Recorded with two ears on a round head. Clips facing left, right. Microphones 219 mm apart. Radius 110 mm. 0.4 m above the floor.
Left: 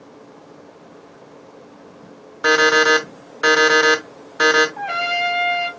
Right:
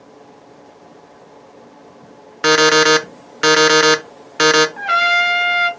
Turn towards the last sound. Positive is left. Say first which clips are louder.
# right 3 dB
turn(degrees=-20)  # may be behind; listen again after turning